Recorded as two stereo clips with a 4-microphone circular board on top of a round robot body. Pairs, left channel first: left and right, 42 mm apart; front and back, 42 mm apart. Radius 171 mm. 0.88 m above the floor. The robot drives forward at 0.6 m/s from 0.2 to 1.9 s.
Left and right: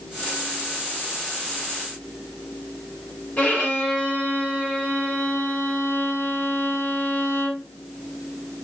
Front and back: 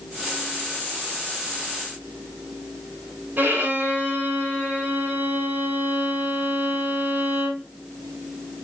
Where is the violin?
145° left, 4 m.